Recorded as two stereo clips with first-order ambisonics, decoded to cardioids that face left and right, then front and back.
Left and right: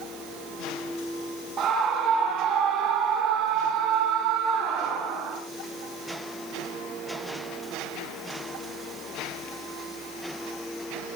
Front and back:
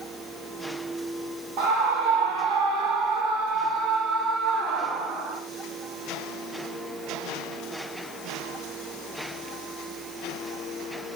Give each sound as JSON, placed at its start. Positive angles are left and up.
{"t": 1.6, "sound": "a scream", "azimuth_deg": -155, "distance_m": 5.5}